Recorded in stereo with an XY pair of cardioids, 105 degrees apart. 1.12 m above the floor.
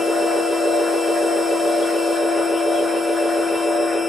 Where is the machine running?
15° left, 0.9 m.